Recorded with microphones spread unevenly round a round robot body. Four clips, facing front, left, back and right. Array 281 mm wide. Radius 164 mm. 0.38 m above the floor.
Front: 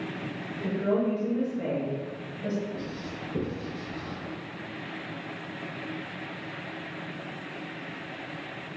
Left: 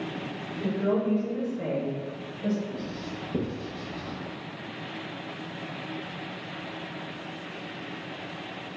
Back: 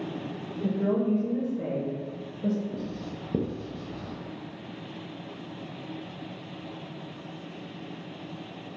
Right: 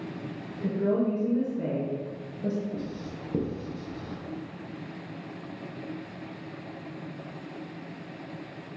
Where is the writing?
155° right, 0.5 m.